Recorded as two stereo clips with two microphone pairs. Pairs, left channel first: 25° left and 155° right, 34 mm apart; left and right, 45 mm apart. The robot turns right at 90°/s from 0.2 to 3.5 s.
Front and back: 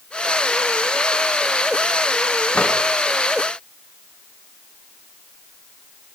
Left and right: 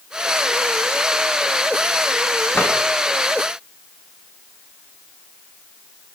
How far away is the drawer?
About 6 m.